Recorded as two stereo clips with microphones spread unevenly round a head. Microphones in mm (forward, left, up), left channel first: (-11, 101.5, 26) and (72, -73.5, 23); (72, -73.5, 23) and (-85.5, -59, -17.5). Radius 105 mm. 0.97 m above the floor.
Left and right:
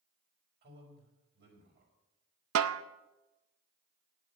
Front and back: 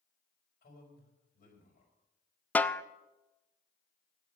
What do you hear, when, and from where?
0.6 s a man speaking: 35° right, 5 m
2.5 s a snare drum: 85° right, 0.6 m